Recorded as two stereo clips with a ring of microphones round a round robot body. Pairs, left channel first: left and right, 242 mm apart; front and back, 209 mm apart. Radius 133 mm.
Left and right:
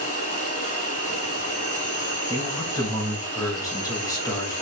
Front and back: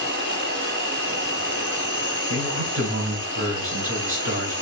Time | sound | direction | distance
0.0 | an insect | 150° left | 3.5 m
2.3 | a man speaking | 165° left | 3.5 m